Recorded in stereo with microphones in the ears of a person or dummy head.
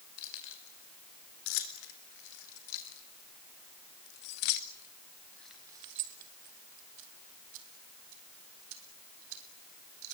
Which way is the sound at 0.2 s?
75° left (ahead or behind).